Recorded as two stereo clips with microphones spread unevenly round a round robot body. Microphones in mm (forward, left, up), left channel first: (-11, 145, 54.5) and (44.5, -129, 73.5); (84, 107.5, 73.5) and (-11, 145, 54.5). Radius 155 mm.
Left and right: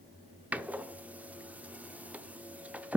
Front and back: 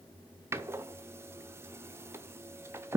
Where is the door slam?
165° right, 0.7 m.